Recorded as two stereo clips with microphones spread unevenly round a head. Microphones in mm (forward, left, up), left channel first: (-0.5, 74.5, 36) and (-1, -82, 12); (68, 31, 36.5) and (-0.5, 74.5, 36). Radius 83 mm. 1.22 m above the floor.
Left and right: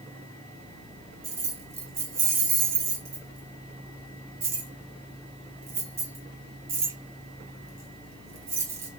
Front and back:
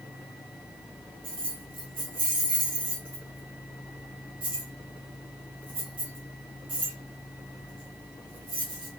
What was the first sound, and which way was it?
Keys jangling, 170° right.